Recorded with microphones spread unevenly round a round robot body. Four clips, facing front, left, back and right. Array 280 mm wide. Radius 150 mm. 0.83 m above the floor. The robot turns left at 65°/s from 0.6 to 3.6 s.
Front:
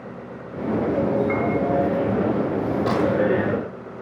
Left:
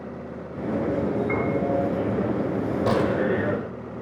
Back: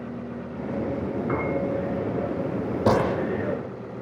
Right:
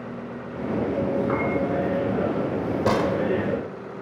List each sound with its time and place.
1.3 s a piano: 140° right, 6 m; by 1.5 s 155° right, 6 m
2.9 s a gunshot: 170° right, 1.0 m; by 3.3 s 165° left, 1.0 m